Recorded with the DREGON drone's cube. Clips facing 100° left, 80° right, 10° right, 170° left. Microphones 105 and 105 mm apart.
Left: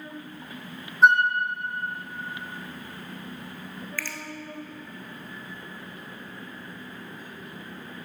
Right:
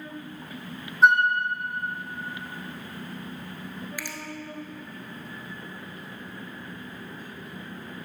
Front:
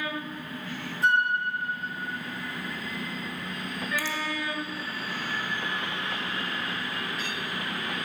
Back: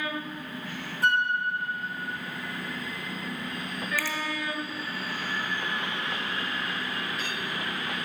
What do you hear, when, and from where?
1.0 s a flute: 170° right, 0.8 m
4.0 s a finger snap: 35° right, 0.8 m